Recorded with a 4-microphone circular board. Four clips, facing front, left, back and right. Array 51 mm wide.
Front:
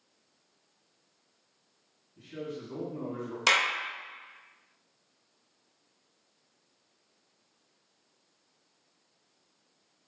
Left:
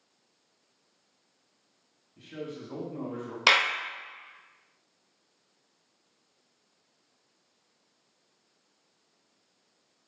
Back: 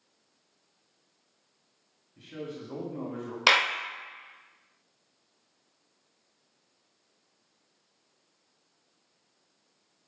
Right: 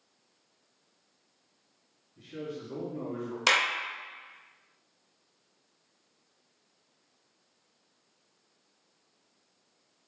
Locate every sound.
2.2 s a man speaking: 150° left, 1.9 m
3.5 s a clap: 145° left, 0.6 m